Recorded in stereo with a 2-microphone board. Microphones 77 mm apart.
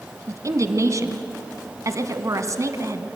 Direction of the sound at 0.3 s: 45° right (ahead or behind).